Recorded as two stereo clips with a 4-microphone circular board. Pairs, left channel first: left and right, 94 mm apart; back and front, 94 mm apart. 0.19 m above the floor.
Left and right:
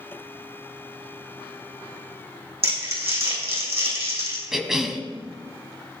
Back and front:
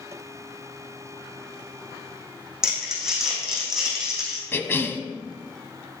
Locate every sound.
2.6 s crumpling: 85° right, 4 m
4.5 s a cough: 170° right, 1.0 m